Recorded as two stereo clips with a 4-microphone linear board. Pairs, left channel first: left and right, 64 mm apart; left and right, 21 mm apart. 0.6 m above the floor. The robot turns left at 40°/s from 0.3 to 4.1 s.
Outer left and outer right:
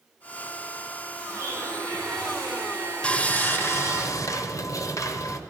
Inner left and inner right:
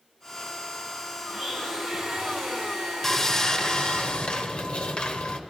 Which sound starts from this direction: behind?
Sawing, at 3.0 s.